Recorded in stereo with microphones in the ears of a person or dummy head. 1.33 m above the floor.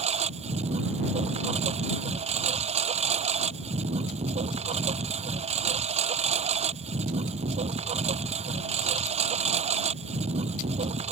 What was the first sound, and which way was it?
A lawn mower, 30° right (ahead or behind).